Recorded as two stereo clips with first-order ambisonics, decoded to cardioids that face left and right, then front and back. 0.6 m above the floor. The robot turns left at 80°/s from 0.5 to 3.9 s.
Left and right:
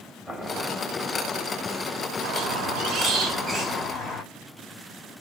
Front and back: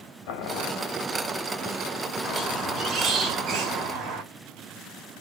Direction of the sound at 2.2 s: 60° right.